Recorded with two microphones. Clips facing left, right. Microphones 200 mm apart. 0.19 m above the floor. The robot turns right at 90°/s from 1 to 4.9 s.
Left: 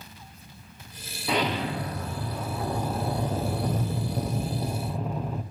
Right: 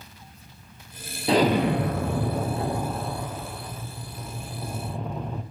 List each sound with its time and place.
1.3 s an explosion: 150° right, 0.8 m; by 5.4 s straight behind, 0.8 m